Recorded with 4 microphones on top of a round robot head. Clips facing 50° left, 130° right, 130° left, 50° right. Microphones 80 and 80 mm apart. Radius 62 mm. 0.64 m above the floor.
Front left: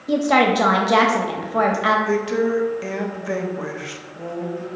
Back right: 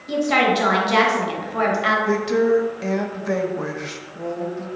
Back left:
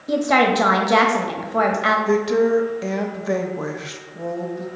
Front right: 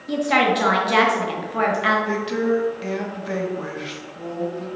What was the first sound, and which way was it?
A woman speaking, 75° left.